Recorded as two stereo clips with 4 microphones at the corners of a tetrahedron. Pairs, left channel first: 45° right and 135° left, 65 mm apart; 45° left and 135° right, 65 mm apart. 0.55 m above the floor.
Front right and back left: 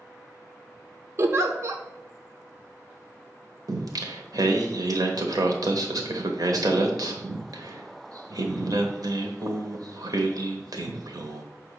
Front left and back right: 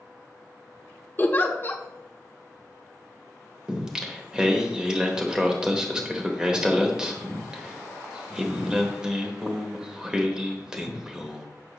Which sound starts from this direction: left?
A giggle, at 1.2 s.